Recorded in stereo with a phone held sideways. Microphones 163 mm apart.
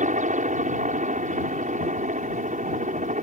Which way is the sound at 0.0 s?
50° right (ahead or behind).